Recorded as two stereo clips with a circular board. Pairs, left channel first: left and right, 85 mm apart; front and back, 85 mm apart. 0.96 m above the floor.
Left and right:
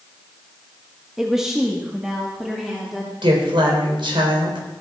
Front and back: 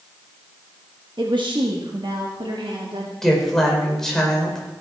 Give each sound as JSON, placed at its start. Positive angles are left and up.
{"t": 1.2, "sound": "a woman speaking", "azimuth_deg": -175, "distance_m": 1.1}
{"t": 3.2, "sound": "a woman speaking", "azimuth_deg": -85, "distance_m": 4.0}